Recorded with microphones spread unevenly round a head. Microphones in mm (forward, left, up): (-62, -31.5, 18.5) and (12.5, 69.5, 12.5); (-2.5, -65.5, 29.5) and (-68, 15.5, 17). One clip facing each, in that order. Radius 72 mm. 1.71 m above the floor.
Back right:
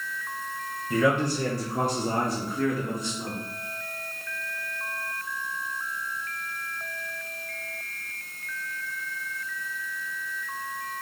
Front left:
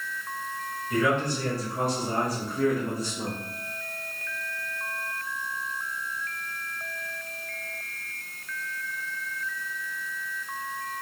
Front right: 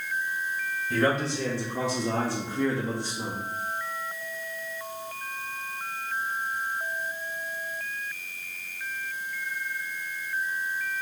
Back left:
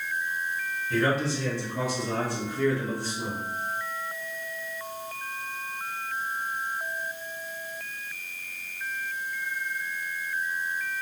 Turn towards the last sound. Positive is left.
turn(degrees=25)